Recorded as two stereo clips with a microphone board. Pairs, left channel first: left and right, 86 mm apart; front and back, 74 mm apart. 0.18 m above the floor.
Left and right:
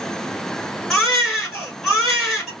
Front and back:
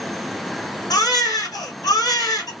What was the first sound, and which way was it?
A baby crying, 5° left.